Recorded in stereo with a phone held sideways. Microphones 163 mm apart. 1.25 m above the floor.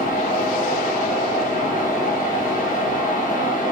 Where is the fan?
55° left (ahead or behind), 0.8 m.